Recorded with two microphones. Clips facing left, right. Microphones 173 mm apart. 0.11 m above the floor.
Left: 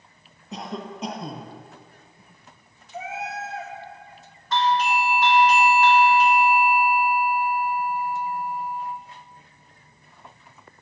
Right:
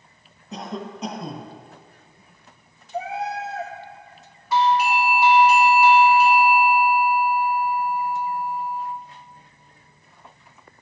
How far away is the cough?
About 2 m.